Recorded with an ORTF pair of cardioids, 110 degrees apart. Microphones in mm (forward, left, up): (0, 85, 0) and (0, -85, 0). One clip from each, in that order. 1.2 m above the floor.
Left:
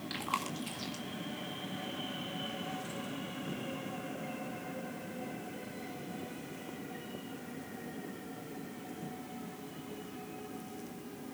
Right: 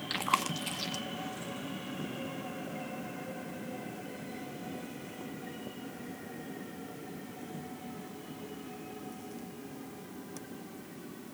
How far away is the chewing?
About 1.8 m.